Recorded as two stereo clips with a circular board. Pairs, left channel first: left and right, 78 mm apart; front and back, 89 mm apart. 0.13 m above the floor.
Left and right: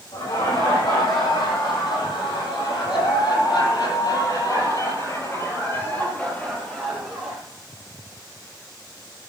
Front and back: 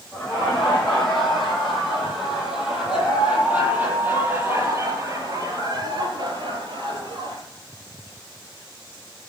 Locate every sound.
0.1 s laughter: 85° left, 8 m; by 7.4 s straight behind, 4 m